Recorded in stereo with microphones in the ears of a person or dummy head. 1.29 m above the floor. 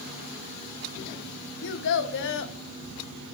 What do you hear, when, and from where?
1.6 s a child speaking: 60° left (ahead or behind), 0.6 m